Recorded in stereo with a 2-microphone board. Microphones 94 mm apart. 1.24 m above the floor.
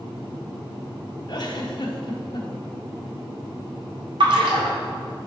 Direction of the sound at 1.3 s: 50° left (ahead or behind).